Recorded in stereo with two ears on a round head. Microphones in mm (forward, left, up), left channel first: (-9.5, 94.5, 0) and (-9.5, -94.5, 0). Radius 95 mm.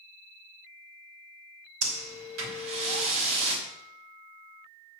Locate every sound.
1.8 s breathing: 70° right (ahead or behind), 2.5 m